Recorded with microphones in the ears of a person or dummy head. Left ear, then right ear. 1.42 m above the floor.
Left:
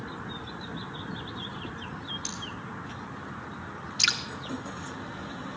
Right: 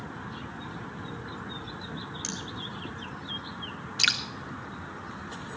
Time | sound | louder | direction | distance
2.2 | cutlery clinking | right 1 dB | 50° right (ahead or behind) | 6 m
4.0 | dripping | even | 20° right (ahead or behind) | 1.2 m